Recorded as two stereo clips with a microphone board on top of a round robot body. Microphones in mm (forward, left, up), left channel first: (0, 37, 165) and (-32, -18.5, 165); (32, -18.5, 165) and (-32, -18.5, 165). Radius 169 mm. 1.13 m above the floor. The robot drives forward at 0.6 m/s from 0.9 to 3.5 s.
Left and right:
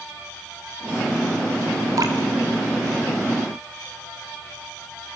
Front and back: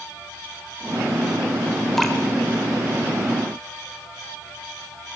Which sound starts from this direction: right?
Dripping, at 2.0 s.